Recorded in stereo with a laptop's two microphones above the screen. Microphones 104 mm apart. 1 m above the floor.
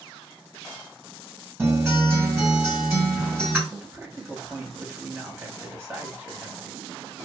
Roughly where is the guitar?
Right.